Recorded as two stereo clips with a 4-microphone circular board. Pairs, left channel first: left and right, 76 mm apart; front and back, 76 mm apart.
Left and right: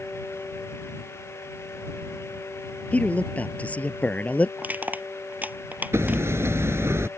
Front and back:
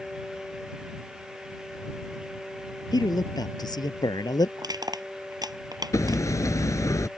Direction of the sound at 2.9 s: 20° left.